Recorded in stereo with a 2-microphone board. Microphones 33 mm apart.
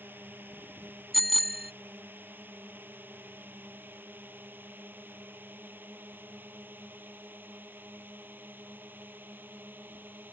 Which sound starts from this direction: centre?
A bicycle bell, at 1.1 s.